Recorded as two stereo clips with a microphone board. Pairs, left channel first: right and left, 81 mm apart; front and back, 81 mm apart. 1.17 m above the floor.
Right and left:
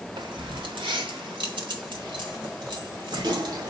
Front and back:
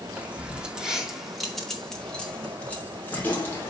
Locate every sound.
0.2 s keys jangling: 110° left, 2 m; by 3.7 s 65° left, 3 m